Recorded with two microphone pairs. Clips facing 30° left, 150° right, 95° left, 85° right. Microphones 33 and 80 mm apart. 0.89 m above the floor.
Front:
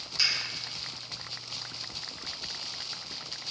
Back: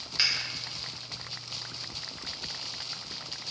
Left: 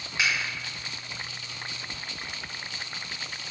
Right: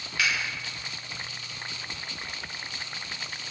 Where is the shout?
No shout in this recording.